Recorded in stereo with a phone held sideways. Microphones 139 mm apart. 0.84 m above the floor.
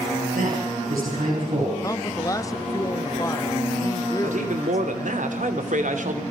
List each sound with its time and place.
0.3 s a man speaking: 85° right, 6.5 m
1.8 s a man speaking: 25° left (ahead or behind), 1.4 m
4.2 s a man speaking: 70° right (ahead or behind), 2.5 m